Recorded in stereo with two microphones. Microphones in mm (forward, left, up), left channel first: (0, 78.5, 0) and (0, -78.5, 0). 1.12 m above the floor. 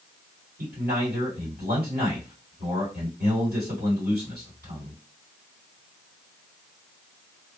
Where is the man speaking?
85° right, 2.5 m.